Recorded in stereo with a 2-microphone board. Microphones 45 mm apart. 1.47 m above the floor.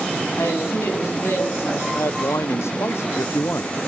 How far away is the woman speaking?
About 9 m.